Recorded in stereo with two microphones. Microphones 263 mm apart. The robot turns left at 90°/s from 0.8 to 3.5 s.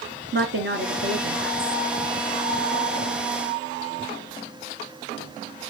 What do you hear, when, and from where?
0.3 s a woman speaking: 60° right, 2 m; by 1.8 s 155° right, 2 m